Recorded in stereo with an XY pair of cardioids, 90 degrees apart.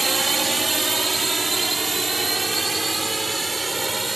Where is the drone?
30° right; by 4.2 s 20° right.